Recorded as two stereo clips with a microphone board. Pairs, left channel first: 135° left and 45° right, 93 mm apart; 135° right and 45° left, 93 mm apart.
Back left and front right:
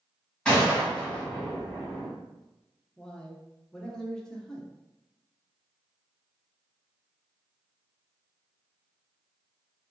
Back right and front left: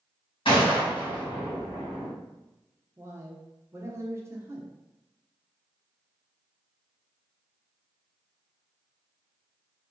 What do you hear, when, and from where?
0.5 s a gunshot: 145° right, 1.4 m
3.0 s a man speaking: 60° left, 0.5 m